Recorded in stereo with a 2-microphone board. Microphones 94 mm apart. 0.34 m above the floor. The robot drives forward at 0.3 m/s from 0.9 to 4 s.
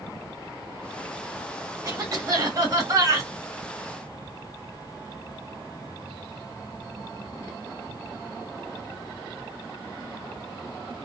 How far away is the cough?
About 1.9 m.